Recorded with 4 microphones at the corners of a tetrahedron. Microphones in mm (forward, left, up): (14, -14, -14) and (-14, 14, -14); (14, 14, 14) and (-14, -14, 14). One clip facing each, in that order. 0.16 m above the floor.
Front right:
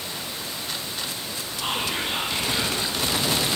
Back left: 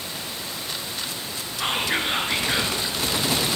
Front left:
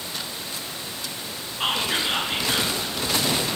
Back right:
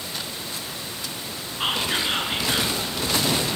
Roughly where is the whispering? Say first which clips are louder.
Back left 3 dB, even; behind left.